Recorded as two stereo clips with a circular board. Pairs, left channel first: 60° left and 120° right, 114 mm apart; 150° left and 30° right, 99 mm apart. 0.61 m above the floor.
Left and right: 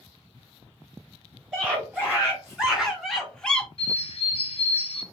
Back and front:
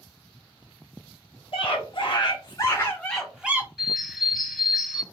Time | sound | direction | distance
1.5 | a scream | 165° left | 1.6 m
3.8 | a bird | 60° left | 0.6 m